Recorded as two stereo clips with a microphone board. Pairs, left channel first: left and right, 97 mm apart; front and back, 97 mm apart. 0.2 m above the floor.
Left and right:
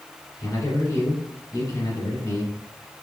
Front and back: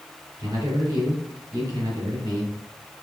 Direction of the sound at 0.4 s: 135° left.